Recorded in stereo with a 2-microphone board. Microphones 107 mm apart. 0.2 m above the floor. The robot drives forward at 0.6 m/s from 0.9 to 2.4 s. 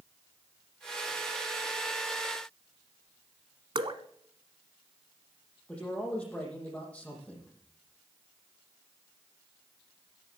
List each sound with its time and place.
3.8 s dripping: 50° right (ahead or behind), 1.1 m
5.7 s a man speaking: 10° left (ahead or behind), 7 m